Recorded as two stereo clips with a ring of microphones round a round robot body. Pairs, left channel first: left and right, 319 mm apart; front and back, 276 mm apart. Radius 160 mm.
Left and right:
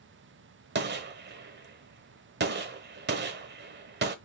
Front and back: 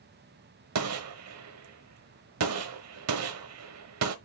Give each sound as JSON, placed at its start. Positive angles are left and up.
{"t": 0.8, "sound": "a gunshot", "azimuth_deg": -145, "distance_m": 1.1}